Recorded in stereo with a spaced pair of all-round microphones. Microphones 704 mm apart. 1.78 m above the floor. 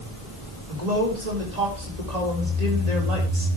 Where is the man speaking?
65° right (ahead or behind), 4.5 m.